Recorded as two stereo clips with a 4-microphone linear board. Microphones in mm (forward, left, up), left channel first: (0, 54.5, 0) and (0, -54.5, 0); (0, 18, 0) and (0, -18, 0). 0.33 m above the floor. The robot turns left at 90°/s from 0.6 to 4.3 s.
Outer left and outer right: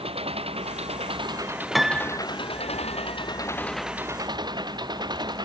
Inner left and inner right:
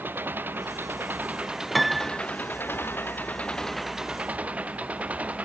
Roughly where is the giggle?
I don't hear a giggle.